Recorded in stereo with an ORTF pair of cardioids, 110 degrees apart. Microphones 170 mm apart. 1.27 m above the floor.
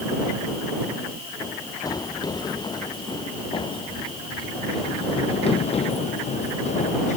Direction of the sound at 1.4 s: 20° left.